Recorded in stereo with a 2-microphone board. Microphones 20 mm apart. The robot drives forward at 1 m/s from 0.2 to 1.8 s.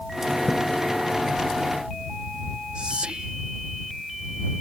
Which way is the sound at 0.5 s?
10° left (ahead or behind).